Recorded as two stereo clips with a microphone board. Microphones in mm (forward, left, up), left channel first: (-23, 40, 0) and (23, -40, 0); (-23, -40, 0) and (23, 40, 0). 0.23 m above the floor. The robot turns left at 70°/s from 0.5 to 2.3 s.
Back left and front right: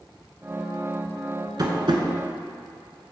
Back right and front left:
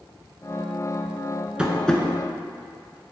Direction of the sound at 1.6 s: 20° right.